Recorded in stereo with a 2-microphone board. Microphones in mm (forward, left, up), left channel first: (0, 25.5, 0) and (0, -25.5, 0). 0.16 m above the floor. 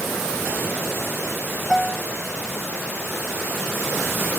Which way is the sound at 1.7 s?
5° right (ahead or behind).